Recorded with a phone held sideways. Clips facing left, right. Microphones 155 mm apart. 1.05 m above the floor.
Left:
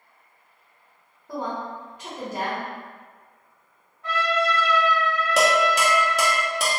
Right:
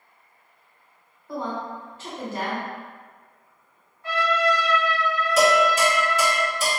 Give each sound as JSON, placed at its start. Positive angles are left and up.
{"t": 1.3, "sound": "a woman speaking", "side_deg": 15, "distance_m": 0.8}
{"t": 4.0, "sound": "a trumpet", "side_deg": 65, "distance_m": 1.4}
{"t": 5.4, "sound": "dishes clattering", "side_deg": 70, "distance_m": 0.8}